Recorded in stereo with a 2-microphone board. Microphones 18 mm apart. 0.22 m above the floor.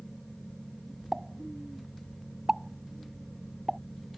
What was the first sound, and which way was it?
A pop, 20° right (ahead or behind).